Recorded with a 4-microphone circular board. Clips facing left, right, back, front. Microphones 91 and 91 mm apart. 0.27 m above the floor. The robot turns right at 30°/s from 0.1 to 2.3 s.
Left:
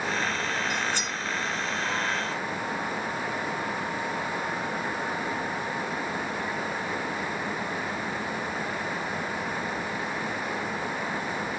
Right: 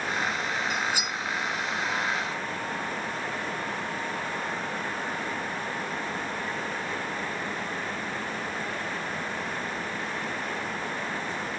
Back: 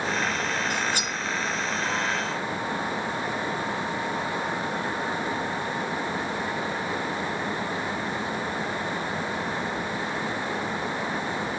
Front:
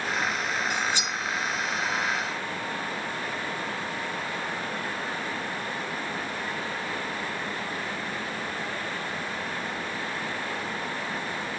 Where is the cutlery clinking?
175° right, 0.9 m; by 1.2 s 160° right, 0.9 m.